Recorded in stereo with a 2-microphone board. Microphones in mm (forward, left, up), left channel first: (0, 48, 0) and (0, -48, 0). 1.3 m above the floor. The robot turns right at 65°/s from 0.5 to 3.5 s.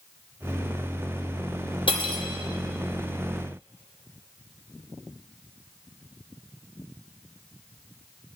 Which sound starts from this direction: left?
Cutlery clinking, at 1.9 s.